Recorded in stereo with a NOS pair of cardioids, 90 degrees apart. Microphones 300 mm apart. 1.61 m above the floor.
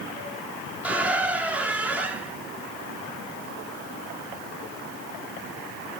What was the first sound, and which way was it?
A squeak, 5° right.